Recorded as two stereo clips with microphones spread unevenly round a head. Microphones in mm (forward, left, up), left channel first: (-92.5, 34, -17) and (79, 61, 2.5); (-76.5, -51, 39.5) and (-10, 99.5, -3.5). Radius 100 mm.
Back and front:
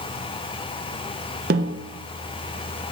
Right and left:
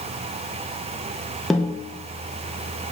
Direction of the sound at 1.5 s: 30° right.